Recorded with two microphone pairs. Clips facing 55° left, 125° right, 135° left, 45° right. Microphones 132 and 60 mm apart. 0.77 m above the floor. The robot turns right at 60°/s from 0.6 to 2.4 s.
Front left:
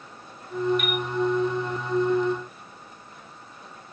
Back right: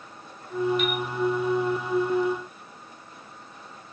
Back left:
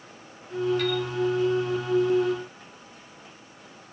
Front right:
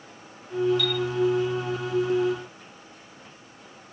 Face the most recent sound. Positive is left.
turn(degrees=-170)